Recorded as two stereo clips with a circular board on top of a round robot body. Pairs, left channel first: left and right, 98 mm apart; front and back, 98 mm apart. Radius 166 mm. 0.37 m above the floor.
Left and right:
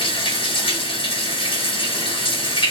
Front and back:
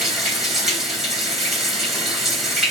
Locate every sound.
0.0 s running water: 90° left, 2 m